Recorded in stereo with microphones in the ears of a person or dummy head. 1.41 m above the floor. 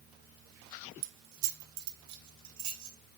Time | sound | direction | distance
1.0 | keys jangling | 65° right (ahead or behind) | 0.6 m